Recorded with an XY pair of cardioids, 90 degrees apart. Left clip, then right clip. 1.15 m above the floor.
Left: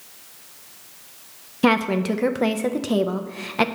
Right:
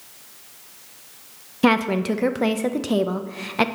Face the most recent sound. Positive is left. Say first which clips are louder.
# even
turn(degrees=-5)